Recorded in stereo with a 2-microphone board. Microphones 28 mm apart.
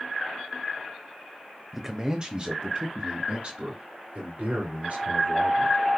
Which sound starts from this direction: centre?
A man speaking, at 1.7 s.